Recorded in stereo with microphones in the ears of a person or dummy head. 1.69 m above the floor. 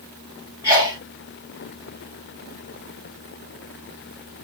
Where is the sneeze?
10° left (ahead or behind), 2.5 m.